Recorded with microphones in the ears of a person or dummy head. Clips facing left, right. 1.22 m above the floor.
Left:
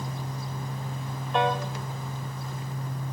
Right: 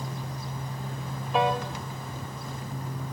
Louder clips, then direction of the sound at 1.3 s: Even; 5° right (ahead or behind).